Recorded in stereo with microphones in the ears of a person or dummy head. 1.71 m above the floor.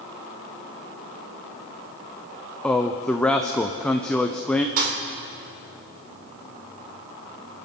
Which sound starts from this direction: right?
A thud, at 4.8 s.